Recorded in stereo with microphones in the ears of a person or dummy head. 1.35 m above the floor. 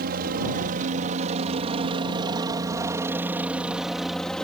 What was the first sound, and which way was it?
A helicopter, 50° right (ahead or behind).